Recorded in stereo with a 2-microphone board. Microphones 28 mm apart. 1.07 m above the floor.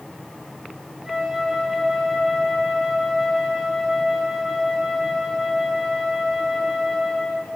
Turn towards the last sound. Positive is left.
turn(degrees=-5)  # may be behind; listen again after turning